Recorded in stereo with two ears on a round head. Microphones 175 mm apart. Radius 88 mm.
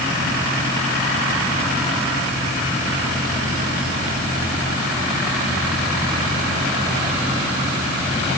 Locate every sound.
Only background noise.